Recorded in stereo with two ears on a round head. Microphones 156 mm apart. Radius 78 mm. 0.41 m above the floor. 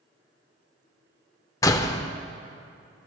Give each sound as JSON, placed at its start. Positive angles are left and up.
{"t": 1.6, "sound": "a door slam", "side_deg": 20, "distance_m": 0.6}